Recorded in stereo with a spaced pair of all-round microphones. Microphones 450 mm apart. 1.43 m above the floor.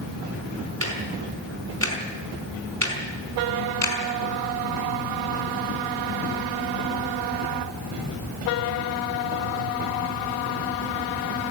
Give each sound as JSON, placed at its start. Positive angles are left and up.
{"t": 0.8, "sound": "ticking", "side_deg": -30, "distance_m": 4.5}